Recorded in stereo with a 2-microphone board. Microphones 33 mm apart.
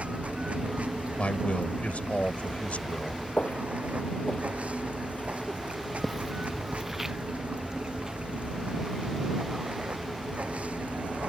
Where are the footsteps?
50° left (ahead or behind); by 8.2 s 15° right (ahead or behind).